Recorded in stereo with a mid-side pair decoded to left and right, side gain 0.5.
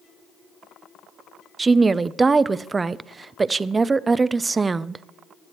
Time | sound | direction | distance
1.6 | a woman speaking | 30° right | 0.5 m